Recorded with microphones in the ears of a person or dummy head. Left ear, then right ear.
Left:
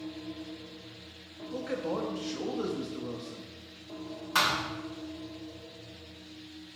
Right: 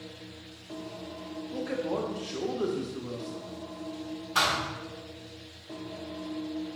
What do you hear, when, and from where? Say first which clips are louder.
1.5 s a man speaking: right 1 dB; 5° left (ahead or behind), 0.8 m
4.3 s a thud: right 1 dB; 55° left (ahead or behind), 2 m